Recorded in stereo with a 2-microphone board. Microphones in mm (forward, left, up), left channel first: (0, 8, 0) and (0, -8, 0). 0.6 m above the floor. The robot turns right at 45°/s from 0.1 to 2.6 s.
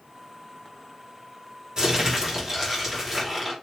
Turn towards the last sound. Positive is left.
turn(degrees=-30)